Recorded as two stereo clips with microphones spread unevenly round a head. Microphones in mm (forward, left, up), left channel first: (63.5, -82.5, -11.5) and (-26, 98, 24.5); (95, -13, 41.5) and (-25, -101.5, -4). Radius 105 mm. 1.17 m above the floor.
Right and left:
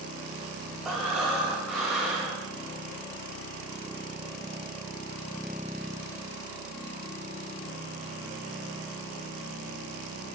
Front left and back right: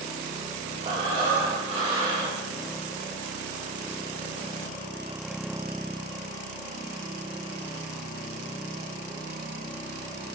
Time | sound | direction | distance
0.8 | breathing | 170° left | 0.7 m